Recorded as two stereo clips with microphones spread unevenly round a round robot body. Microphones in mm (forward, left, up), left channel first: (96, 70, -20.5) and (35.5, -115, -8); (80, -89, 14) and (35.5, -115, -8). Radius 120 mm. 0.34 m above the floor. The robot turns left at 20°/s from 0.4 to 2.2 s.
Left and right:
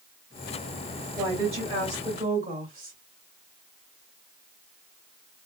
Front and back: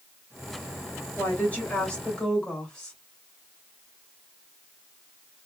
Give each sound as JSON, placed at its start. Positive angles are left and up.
{"t": 1.2, "sound": "a woman speaking", "azimuth_deg": -40, "distance_m": 1.6}